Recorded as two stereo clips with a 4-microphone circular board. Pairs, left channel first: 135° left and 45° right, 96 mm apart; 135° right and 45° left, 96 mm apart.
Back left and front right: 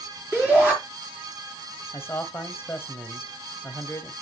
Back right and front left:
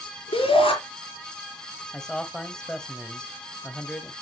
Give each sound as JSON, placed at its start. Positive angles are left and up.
{"t": 0.3, "sound": "a shout", "azimuth_deg": -125, "distance_m": 5.0}
{"t": 1.9, "sound": "a man speaking", "azimuth_deg": 150, "distance_m": 1.1}